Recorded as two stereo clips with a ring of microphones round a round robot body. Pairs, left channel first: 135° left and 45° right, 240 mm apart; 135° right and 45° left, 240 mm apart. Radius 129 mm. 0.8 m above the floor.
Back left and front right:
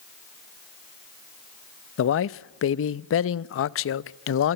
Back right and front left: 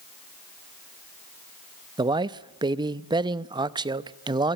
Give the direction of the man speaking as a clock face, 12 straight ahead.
8 o'clock.